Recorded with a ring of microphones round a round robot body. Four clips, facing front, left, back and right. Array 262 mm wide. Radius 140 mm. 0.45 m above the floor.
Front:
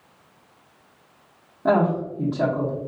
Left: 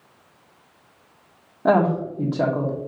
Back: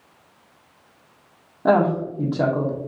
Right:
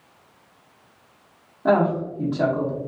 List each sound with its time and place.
1.6 s a woman speaking: 135° left, 0.8 m